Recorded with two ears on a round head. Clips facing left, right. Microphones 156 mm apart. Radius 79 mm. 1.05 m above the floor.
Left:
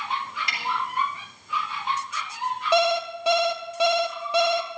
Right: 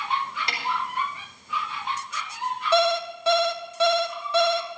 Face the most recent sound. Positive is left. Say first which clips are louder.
# even
turn(degrees=10)  # may be behind; listen again after turning